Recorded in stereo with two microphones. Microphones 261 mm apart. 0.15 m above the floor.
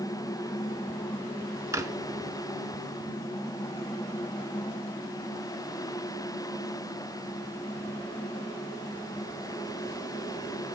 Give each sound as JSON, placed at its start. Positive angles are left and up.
{"t": 1.7, "sound": "a drawer", "side_deg": -10, "distance_m": 0.9}